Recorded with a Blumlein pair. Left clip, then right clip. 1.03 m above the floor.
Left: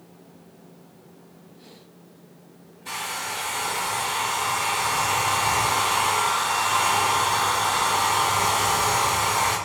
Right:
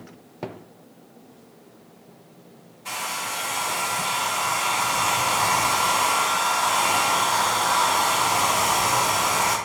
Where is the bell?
No bell in this recording.